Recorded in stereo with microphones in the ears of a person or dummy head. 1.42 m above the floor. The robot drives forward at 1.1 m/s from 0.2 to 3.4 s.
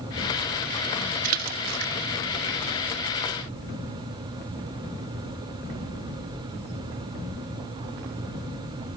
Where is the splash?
50° right (ahead or behind); by 1.9 s 65° right (ahead or behind).